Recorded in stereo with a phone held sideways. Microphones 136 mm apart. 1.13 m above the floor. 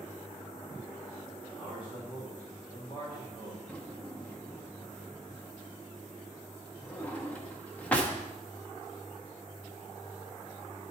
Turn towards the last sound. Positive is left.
turn(degrees=10)  # may be behind; listen again after turning